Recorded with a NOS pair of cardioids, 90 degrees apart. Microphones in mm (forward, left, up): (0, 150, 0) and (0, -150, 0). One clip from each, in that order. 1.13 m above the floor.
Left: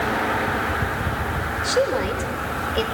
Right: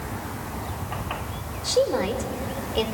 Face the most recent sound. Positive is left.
turn(degrees=5)